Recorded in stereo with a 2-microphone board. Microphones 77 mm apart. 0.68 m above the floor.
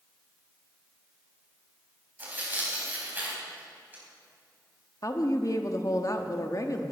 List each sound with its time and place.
2.2 s tearing paper: 25° right (ahead or behind), 3.5 m
5.0 s a woman speaking: 45° left (ahead or behind), 1.0 m